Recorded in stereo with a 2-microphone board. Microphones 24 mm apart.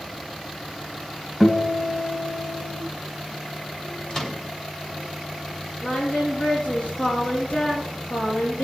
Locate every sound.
1.4 s a guitar: centre (ahead or behind), 2.5 m
4.1 s a microwave: 20° left (ahead or behind), 1.4 m
5.8 s singing: 75° left (ahead or behind), 5 m